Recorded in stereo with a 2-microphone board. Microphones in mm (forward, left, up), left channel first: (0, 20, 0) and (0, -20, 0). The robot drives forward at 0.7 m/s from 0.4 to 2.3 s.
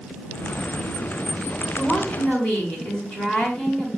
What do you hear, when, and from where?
1.8 s a woman speaking: 25° left (ahead or behind), 5 m